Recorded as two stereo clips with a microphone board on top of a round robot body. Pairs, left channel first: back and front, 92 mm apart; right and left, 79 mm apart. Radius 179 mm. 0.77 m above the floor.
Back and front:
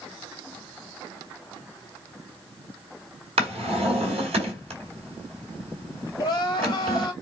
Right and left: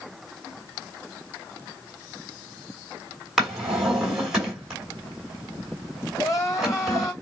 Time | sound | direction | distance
3.4 | a drawer | 5° left | 2.0 m
6.2 | crying | 135° right | 1.8 m